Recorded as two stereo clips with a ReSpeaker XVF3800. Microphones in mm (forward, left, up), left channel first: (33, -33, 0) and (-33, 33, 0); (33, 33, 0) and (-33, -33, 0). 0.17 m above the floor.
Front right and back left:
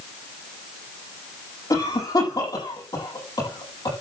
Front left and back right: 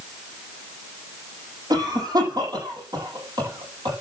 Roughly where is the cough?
Right.